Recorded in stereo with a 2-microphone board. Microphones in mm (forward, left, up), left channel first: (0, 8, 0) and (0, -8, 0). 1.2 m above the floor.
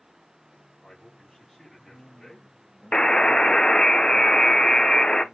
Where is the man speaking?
30° left (ahead or behind), 4 m.